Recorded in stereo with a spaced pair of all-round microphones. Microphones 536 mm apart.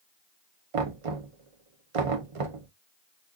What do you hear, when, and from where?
0.7 s knocking: 70° right (ahead or behind), 0.7 m